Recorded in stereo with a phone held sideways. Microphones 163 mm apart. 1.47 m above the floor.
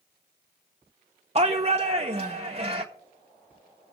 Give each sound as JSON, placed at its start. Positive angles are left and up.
{"t": 1.4, "sound": "a shout", "side_deg": -40, "distance_m": 0.6}